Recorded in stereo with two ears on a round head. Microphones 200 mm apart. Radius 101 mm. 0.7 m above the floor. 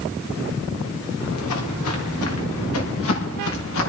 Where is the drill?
No drill in this recording.